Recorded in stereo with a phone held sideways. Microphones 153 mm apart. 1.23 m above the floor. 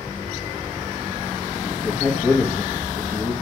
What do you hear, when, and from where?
1.6 s a man speaking: 10° left (ahead or behind), 1.4 m